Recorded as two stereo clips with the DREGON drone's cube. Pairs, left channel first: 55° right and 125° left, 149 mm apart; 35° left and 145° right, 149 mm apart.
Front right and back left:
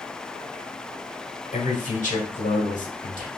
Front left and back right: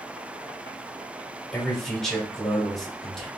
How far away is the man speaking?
About 1.4 m.